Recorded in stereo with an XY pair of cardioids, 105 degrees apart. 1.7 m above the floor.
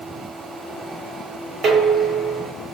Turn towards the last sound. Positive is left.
turn(degrees=-65)